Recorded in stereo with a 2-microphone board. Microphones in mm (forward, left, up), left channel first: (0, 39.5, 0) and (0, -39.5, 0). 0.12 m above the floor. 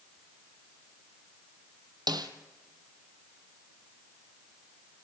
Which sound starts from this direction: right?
A snare drum, at 2.1 s.